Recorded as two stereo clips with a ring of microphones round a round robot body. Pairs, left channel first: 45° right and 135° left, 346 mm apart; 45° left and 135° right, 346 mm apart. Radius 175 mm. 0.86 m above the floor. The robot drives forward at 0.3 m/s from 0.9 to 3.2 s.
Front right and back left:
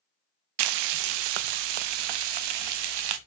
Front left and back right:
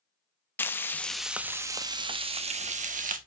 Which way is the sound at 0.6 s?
130° left.